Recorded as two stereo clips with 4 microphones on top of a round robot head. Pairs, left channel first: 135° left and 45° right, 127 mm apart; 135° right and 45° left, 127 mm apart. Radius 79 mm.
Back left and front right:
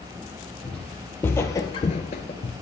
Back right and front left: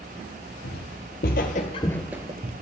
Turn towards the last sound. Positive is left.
turn(degrees=80)